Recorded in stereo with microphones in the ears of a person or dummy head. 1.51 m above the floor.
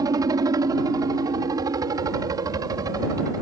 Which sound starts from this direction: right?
A helicopter, at 0.0 s.